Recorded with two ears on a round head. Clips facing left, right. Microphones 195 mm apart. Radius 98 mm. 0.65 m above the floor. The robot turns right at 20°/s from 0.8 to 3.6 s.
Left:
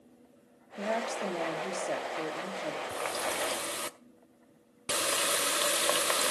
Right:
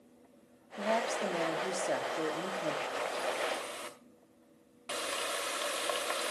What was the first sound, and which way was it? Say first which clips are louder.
A woman speaking: even; 165° left.